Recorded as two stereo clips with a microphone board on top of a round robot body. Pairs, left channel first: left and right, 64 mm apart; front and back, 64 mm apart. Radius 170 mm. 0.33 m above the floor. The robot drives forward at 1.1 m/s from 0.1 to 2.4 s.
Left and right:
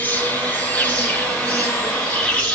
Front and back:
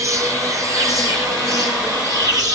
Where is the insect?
150° left, 5 m; by 2.5 s 160° left, 7 m.